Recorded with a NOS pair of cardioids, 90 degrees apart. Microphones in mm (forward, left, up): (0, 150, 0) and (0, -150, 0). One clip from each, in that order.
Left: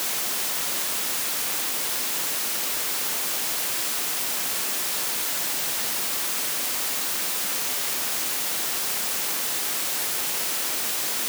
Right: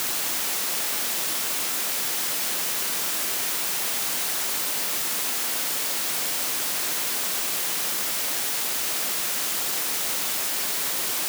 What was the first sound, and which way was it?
Only background noise.